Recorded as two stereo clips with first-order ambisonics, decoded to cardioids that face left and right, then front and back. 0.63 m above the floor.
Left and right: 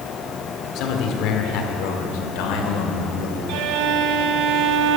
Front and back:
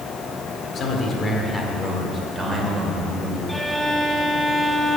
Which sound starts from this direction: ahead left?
A man speaking, at 0.8 s.